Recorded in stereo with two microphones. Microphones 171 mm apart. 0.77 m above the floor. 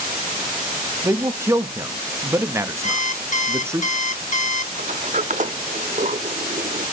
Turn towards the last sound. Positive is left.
turn(degrees=-50)  # may be behind; listen again after turning